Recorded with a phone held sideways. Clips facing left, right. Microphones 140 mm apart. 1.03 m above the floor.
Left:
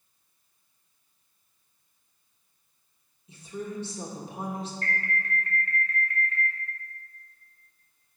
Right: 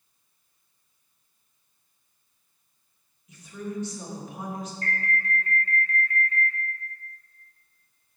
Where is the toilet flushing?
I don't hear a toilet flushing.